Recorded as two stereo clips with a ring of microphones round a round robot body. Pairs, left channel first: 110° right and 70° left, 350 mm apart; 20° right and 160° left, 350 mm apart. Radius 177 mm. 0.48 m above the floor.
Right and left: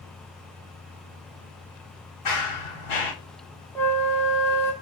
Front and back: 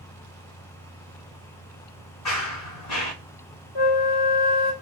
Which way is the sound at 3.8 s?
35° right.